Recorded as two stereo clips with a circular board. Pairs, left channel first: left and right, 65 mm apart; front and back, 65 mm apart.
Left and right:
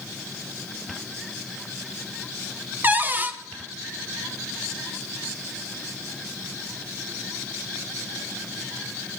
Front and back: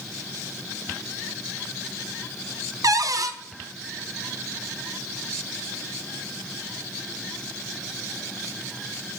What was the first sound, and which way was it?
A cupboard door, 150° right.